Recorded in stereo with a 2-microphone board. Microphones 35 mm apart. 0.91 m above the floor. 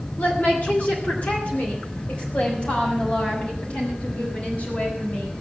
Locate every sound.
0.2 s a woman speaking: 55° left (ahead or behind), 3 m; by 5.3 s 45° left (ahead or behind), 6.5 m